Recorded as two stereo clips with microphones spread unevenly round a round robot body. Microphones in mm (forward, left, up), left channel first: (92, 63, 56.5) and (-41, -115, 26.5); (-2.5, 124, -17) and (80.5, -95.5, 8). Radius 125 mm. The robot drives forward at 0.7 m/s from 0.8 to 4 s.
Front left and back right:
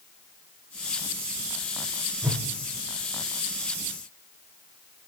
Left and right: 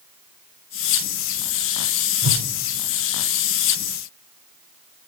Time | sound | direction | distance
2.2 | a whoosh | 50° right | 1.6 m